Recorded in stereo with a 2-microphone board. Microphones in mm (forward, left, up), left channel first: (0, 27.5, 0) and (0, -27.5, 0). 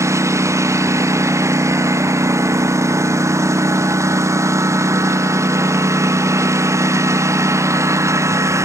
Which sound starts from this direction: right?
A lawn mower, at 0.0 s.